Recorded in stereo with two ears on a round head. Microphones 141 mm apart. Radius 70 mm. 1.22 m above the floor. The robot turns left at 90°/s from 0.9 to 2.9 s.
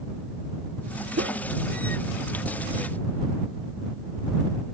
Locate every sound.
1.2 s a whoosh: 65° right (ahead or behind); by 1.4 s 85° right